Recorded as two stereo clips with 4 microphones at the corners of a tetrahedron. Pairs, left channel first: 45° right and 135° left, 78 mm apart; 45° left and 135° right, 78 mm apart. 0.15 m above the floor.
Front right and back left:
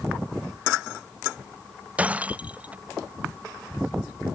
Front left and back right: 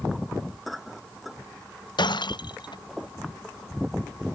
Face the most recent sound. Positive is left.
turn(degrees=60)